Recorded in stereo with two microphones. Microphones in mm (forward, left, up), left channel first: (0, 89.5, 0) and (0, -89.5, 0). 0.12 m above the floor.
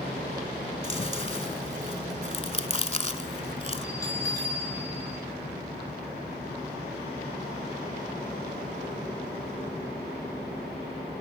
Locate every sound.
0.8 s chewing: 35° left (ahead or behind), 0.6 m
3.8 s a bell: 20° left (ahead or behind), 6 m